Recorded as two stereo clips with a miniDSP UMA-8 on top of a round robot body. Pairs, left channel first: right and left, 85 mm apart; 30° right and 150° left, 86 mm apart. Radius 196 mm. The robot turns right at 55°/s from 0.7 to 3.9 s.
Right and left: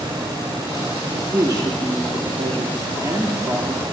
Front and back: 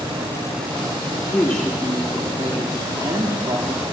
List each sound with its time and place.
1.3 s a woman speaking: 25° left, 1.6 m; by 3.9 s 170° left, 1.6 m